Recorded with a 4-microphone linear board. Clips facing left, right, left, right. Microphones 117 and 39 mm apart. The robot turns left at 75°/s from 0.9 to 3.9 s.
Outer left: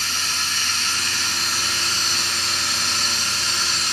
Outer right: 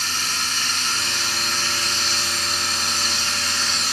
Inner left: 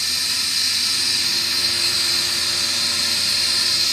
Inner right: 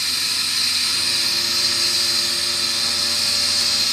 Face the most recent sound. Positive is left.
turn(degrees=-5)